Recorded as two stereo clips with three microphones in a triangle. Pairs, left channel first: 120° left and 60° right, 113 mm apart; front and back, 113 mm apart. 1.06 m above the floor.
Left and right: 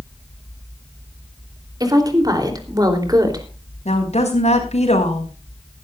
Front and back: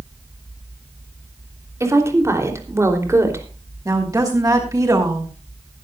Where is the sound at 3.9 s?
120° left, 5.5 m.